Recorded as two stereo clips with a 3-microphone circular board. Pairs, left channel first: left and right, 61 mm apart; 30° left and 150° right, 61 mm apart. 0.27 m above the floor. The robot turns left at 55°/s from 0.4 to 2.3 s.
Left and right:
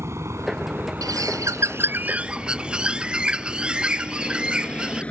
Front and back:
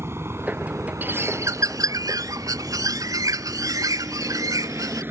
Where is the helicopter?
115° right; by 5.1 s 160° left.